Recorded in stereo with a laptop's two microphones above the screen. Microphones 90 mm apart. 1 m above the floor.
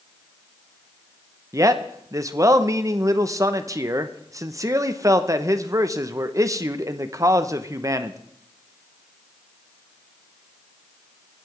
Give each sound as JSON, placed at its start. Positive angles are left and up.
{"t": 1.5, "sound": "a man speaking", "side_deg": -35, "distance_m": 0.9}